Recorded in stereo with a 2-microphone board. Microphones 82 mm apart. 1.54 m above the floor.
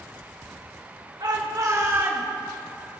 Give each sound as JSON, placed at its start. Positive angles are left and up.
{"t": 1.2, "sound": "a shout", "side_deg": -60, "distance_m": 1.6}